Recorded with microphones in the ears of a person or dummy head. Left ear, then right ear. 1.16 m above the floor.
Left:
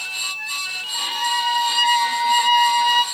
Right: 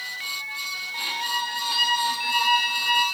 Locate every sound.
0.9 s a violin: 20° left (ahead or behind), 1.3 m